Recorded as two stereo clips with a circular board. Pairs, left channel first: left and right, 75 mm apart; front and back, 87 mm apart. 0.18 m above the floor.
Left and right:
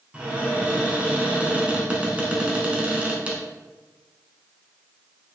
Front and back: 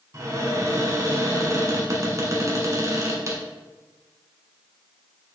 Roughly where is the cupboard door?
Behind right.